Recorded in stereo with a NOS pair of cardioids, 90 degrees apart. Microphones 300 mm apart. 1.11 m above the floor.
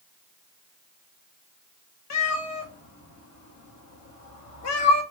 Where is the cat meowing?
65° left, 1.1 m.